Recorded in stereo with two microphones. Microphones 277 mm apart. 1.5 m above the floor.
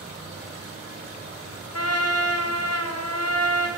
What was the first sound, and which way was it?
An insect, 45° right (ahead or behind).